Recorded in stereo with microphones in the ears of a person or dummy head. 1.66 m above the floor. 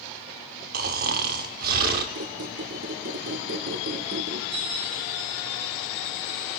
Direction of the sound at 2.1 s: 60° right (ahead or behind).